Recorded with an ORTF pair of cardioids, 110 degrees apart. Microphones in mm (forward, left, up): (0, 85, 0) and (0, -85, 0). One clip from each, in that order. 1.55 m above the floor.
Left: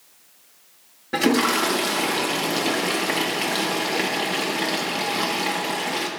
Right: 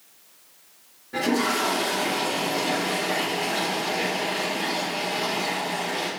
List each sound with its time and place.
1.1 s a toilet flushing: 65° left, 2.5 m